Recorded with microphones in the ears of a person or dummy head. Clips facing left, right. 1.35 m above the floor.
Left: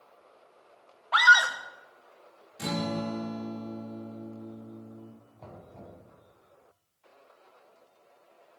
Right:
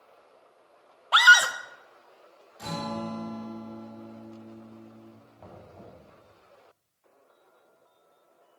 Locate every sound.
1.1 s a scream: 40° right (ahead or behind), 1.1 m
2.6 s a guitar: 35° left (ahead or behind), 2.5 m
5.4 s knocking: 5° right (ahead or behind), 6.5 m